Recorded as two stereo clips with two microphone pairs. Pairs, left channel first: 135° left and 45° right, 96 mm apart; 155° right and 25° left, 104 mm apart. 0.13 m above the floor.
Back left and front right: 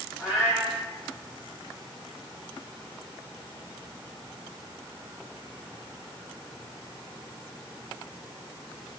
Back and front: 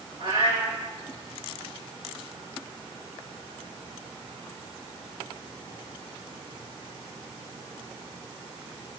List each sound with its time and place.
0.2 s a cat meowing: 40° left, 7.5 m